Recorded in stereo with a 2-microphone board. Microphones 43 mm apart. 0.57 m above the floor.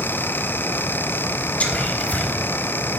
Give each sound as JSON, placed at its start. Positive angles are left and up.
{"t": 1.6, "sound": "whispering", "side_deg": 30, "distance_m": 1.2}